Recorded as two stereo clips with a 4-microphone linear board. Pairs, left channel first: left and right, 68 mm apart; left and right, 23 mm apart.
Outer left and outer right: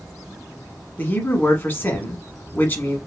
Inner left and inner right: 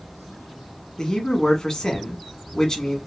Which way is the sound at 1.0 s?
30° left (ahead or behind).